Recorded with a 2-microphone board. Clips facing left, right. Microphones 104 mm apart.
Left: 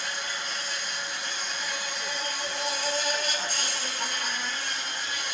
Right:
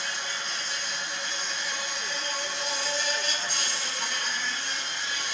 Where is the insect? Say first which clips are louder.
Even; 40° left (ahead or behind), 0.9 m.